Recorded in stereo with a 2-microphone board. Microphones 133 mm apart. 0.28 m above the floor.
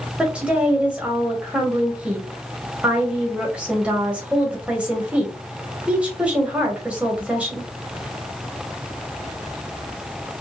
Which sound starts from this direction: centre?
A woman speaking, at 0.2 s.